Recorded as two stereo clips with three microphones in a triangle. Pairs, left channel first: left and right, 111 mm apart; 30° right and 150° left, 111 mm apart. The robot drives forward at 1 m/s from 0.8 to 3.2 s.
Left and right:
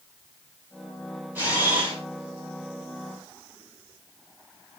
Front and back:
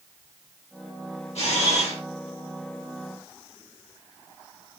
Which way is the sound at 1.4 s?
15° right.